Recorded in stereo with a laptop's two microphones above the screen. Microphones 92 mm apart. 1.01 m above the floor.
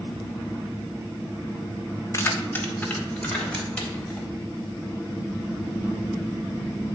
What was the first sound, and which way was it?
Keys jangling, 30° left (ahead or behind).